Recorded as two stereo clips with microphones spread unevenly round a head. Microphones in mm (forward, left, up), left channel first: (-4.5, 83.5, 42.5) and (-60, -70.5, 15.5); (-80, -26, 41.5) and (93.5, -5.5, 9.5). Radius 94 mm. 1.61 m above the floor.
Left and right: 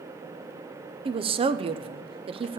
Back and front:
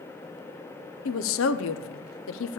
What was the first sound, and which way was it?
A woman speaking, 170° right.